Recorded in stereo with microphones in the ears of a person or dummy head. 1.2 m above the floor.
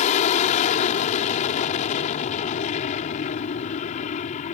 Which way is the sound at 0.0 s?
40° left (ahead or behind).